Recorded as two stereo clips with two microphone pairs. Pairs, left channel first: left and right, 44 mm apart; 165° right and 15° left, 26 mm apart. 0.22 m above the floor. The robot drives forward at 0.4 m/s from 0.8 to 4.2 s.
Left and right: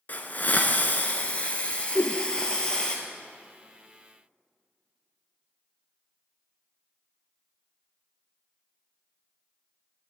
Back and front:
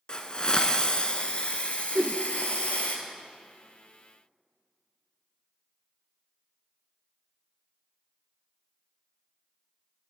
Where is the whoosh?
75° left, 0.5 m; by 2.2 s 85° left, 0.5 m.